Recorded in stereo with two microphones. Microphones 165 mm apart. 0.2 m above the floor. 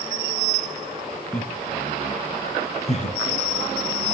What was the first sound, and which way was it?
Laughter, 5° left (ahead or behind).